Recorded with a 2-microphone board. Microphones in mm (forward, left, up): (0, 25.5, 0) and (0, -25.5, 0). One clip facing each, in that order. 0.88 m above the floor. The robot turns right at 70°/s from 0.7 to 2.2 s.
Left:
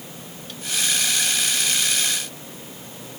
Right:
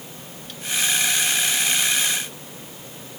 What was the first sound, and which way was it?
Only background noise.